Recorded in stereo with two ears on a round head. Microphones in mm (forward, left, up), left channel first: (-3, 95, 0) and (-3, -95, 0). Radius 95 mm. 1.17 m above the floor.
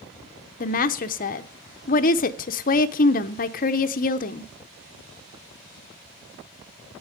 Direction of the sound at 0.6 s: 40° left (ahead or behind).